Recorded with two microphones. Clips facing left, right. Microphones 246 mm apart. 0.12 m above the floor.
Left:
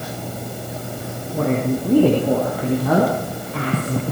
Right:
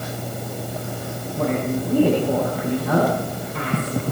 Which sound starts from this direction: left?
A woman speaking, at 1.3 s.